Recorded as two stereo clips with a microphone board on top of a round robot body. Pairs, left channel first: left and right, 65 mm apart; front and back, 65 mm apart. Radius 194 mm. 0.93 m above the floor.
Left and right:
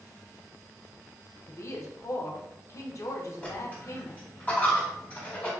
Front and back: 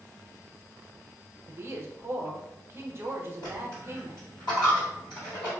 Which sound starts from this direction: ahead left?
A dropped coin, at 3.4 s.